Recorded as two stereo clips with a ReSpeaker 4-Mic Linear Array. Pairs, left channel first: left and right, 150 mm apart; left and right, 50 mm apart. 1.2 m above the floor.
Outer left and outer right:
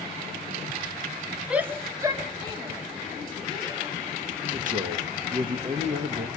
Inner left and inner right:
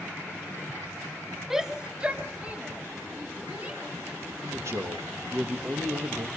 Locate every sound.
1.5 s a shout: 5° right (ahead or behind), 0.9 m; by 4.2 s 30° right (ahead or behind), 4.5 m
4.4 s a man speaking: 60° right (ahead or behind), 2.0 m